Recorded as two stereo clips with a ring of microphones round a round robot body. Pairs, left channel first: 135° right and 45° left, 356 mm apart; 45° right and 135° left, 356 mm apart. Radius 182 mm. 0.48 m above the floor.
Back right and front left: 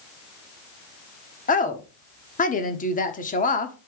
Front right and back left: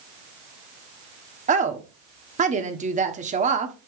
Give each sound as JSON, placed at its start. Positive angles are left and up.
{"t": 1.5, "sound": "a woman speaking", "azimuth_deg": -175, "distance_m": 1.2}